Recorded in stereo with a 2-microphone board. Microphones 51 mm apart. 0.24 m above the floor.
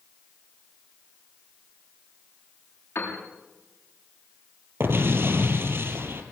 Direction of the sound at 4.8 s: 55° right (ahead or behind).